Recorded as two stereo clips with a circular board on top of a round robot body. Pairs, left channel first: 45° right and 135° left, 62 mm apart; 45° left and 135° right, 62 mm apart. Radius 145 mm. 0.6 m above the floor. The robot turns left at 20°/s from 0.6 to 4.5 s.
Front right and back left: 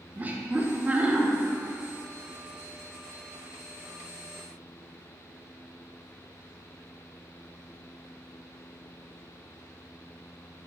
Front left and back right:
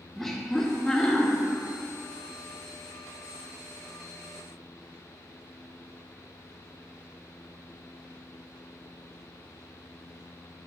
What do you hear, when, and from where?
0.1 s laughter: 120° left, 0.6 m; by 1.3 s 110° left, 0.6 m